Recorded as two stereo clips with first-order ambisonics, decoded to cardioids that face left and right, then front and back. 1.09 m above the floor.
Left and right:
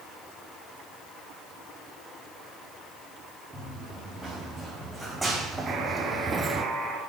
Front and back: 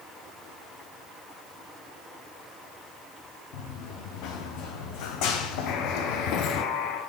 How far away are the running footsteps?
About 5.5 m.